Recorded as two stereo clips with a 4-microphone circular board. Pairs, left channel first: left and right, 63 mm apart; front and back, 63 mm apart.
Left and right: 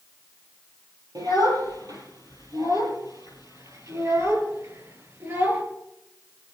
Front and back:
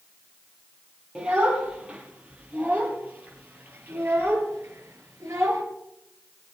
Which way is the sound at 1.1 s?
105° right.